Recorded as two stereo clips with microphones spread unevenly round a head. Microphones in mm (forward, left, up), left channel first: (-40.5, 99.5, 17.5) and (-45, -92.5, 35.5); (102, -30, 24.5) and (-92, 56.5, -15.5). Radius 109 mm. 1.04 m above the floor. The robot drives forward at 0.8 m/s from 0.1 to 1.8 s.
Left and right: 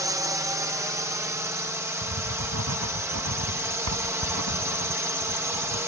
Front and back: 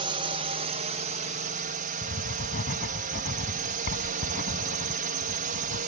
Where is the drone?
165° right; by 5.9 s 170° right.